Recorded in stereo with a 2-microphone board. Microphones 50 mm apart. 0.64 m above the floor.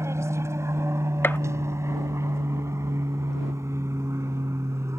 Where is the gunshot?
50° left (ahead or behind).